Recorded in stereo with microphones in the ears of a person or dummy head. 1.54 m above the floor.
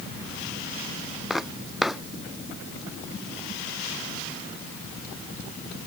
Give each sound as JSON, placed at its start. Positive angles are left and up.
{"t": 1.3, "sound": "footsteps", "side_deg": 0}